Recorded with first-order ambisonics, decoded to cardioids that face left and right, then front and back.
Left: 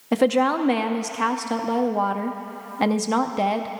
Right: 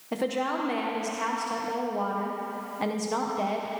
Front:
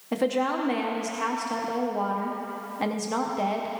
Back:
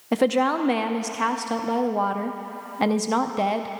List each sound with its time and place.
0.1 s a woman speaking: 130° left, 0.7 m